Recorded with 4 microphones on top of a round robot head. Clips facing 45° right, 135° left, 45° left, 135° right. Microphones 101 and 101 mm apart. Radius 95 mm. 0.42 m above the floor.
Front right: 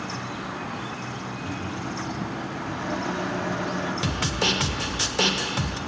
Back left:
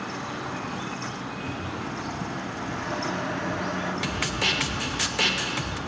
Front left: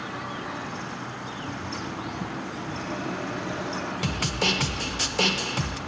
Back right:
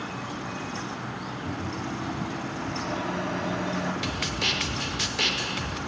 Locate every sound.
1.4 s a microwave: 125° right, 3.5 m
4.0 s a snare drum: 10° left, 1.5 m